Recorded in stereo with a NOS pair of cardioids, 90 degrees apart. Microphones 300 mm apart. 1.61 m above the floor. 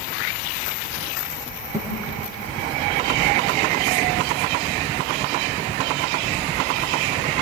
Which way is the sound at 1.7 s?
10° right.